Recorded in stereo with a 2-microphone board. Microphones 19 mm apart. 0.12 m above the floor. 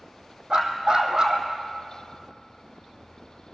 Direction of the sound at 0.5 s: 45° right (ahead or behind).